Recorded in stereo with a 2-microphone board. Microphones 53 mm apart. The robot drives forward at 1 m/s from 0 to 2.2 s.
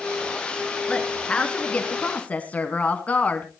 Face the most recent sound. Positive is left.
turn(degrees=25)  # may be behind; listen again after turning